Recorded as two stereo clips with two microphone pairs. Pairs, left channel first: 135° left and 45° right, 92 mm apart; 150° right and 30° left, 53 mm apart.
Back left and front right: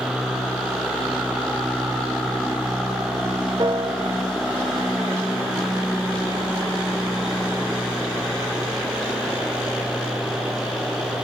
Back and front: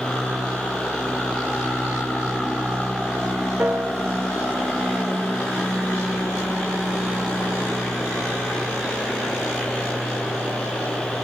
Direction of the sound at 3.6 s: 20° right.